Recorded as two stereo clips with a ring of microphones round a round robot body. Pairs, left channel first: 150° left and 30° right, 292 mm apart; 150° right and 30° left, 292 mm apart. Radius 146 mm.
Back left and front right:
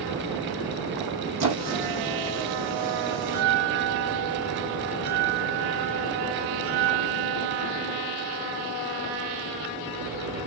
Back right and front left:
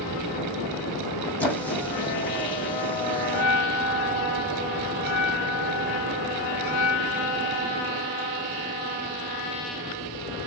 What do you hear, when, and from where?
1.4 s a squeak: 65° right, 2.5 m
3.2 s a bell: 30° right, 3 m